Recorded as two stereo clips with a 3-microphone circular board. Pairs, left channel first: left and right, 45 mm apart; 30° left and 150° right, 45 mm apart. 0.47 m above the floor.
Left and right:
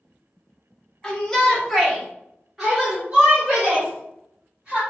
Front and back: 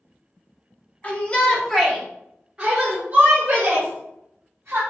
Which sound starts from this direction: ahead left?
A shout, at 1.0 s.